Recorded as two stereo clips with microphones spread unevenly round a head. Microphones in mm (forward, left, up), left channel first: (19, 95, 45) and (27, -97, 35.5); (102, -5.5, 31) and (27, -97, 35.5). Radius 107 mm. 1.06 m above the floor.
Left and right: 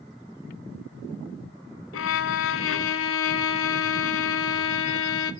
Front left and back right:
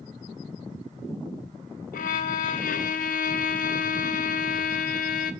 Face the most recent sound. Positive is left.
turn(degrees=75)